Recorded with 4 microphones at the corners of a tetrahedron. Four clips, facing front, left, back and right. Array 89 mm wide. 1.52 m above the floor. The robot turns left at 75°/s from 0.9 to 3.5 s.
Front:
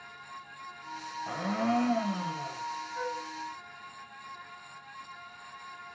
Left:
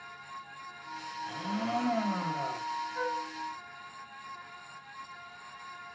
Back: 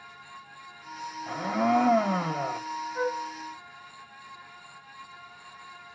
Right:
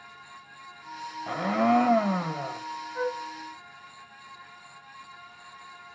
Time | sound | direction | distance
1.3 | a blender | 80° right | 1.0 m
3.0 | a flute | 135° right | 1.8 m